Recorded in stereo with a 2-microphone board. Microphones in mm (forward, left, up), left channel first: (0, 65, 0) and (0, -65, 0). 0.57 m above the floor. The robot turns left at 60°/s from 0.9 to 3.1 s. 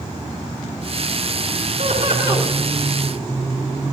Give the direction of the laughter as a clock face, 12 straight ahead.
4 o'clock.